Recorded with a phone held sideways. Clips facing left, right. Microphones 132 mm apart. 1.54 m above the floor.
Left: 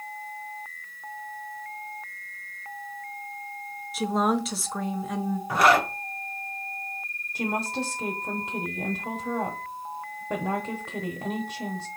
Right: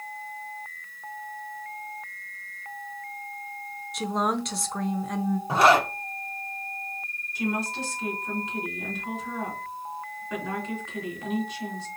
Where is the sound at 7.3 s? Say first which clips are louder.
Even; 60° left (ahead or behind), 1.1 m.